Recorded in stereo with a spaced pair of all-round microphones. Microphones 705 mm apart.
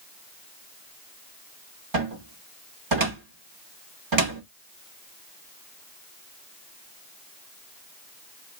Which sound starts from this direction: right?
A cupboard door, at 1.9 s.